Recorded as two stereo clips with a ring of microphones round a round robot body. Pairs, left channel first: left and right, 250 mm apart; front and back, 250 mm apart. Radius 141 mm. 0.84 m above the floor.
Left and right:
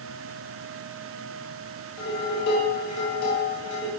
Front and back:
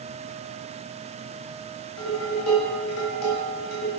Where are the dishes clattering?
40° left, 2.5 m.